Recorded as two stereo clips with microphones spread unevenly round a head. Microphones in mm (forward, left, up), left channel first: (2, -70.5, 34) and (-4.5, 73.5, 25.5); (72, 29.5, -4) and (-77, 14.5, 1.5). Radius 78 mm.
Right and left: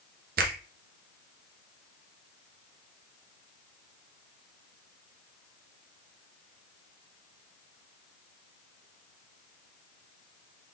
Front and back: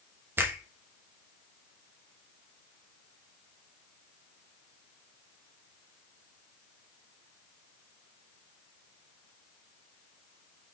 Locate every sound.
0.4 s a finger snap: 110° left, 0.8 m